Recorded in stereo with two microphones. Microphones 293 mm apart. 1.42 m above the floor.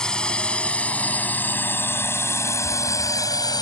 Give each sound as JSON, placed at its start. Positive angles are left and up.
{"t": 0.0, "sound": "a drone", "side_deg": 5}